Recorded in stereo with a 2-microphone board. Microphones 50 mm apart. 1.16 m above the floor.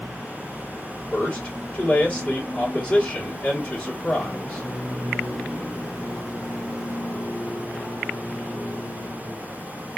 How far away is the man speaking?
About 1.8 m.